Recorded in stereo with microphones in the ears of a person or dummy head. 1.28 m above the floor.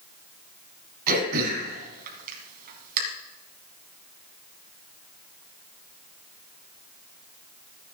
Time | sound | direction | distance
1.1 | throat clearing | 50° right (ahead or behind) | 3 m